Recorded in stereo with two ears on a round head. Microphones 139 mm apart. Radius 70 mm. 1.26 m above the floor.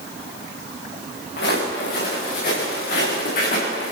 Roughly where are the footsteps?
Left.